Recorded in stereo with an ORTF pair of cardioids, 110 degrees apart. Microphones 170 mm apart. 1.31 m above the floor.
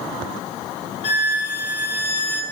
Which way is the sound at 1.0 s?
35° left.